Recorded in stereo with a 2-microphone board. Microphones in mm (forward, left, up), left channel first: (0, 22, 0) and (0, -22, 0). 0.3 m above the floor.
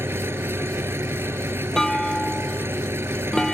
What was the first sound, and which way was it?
An engine running, 80° right.